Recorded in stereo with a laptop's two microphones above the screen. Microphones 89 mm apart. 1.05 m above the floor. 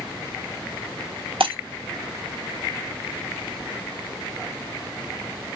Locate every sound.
1.4 s breaking glass: 85° right, 0.9 m